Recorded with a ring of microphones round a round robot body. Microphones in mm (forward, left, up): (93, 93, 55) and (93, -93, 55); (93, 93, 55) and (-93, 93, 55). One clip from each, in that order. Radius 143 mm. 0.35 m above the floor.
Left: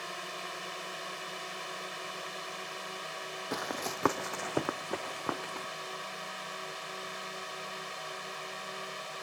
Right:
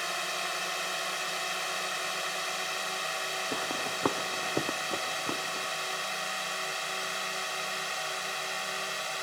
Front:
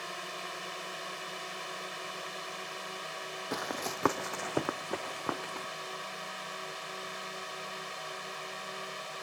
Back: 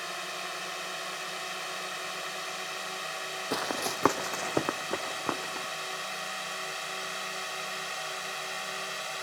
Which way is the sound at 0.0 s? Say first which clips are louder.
Right 7 dB, back 4 dB; 115° right.